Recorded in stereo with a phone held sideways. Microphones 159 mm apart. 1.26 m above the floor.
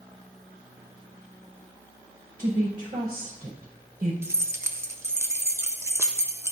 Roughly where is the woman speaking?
Right.